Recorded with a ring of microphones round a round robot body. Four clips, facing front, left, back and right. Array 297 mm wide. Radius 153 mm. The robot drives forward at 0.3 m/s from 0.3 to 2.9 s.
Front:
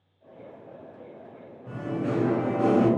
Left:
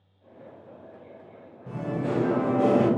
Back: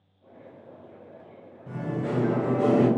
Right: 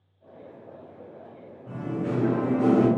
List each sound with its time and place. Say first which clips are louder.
1.7 s singing: left 1 dB, front 1 dB; 110° left, 1.0 m; by 2.9 s 125° left, 1.2 m